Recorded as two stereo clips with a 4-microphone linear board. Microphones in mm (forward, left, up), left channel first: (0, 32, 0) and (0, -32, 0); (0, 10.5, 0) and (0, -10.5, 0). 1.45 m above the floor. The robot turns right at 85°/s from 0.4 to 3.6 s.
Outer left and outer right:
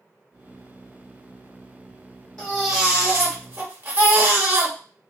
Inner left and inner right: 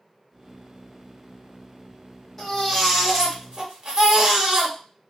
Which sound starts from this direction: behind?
A baby crying, at 2.4 s.